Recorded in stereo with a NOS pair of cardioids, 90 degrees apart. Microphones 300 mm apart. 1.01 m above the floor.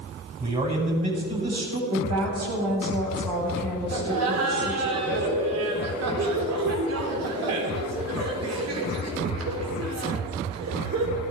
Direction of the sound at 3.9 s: 60° right.